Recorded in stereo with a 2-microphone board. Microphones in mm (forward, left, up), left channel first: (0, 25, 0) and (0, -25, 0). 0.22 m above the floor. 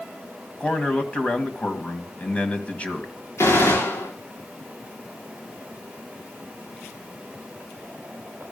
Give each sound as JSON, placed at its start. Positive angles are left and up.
{"t": 0.6, "sound": "a man speaking", "side_deg": 25, "distance_m": 1.7}
{"t": 3.4, "sound": "a gunshot", "side_deg": 70, "distance_m": 9.0}